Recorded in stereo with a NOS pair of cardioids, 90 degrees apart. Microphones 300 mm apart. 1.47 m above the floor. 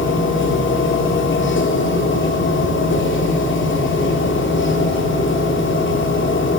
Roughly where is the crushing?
No crushing in this recording.